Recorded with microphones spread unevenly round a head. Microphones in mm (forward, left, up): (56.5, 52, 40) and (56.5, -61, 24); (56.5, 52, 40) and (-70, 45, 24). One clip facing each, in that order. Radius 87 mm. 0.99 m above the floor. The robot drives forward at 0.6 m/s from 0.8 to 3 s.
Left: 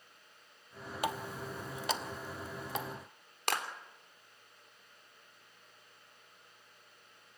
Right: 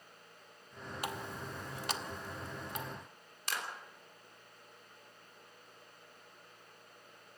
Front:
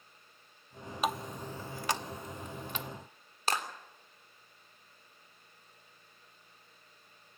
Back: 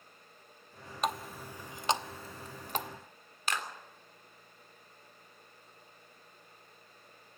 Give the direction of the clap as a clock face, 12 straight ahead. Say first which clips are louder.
Left 6 dB, front 3 dB; 10 o'clock.